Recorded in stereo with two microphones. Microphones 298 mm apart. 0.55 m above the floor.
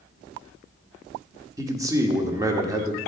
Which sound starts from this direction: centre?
A man speaking, at 1.6 s.